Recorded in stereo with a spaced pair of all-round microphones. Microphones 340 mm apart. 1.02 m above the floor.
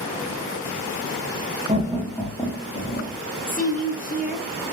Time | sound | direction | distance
1.7 | laughter | 20° right (ahead or behind) | 0.8 m
3.5 | a woman speaking | 25° left (ahead or behind) | 0.7 m